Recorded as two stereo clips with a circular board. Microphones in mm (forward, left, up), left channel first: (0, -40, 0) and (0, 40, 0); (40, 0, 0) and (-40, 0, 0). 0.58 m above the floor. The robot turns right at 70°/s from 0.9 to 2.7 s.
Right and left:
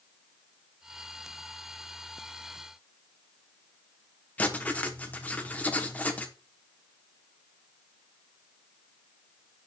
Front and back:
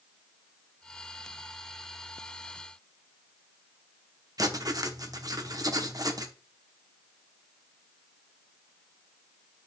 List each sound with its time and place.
4.4 s writing: 155° right, 0.9 m